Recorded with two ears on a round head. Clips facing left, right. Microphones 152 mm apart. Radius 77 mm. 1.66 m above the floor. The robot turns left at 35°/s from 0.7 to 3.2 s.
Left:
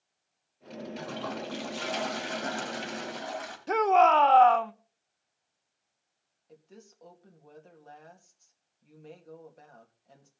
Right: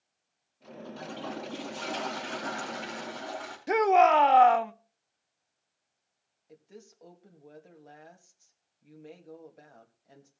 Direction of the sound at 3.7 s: 15° right (ahead or behind).